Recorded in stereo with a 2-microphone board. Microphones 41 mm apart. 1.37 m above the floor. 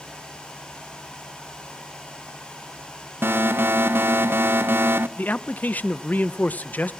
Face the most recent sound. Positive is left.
turn(degrees=45)  # may be behind; listen again after turning